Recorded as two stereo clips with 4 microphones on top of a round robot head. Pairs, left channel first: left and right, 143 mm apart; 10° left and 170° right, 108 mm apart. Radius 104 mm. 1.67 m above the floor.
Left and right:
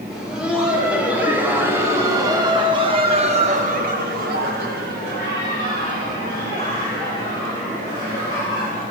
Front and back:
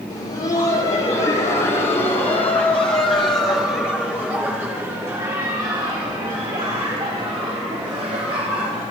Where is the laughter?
5° right, 5.5 m; by 8.8 s 135° right, 6.5 m.